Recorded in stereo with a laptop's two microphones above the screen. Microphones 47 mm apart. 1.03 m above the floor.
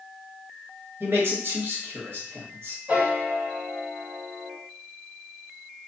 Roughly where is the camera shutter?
I don't hear a camera shutter.